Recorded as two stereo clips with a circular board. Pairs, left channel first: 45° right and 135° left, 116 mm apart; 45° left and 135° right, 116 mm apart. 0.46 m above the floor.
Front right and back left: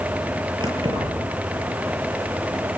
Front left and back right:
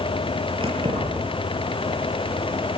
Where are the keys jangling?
Straight behind, 8 m.